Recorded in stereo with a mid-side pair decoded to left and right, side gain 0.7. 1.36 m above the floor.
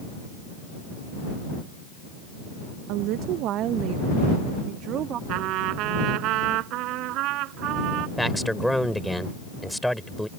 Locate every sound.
2.9 s a woman speaking: 65° right; by 5.2 s 50° right
5.3 s a trumpet: 60° right
8.2 s a man speaking: straight ahead